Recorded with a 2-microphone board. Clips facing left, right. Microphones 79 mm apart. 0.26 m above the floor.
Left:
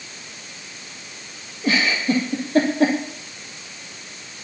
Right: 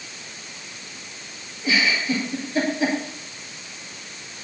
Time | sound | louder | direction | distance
1.6 | a giggle | left 2 dB | 60° left (ahead or behind) | 5 m